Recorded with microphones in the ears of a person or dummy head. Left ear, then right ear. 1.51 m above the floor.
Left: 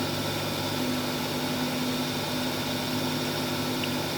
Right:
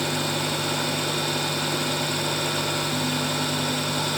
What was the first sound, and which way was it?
Only background noise.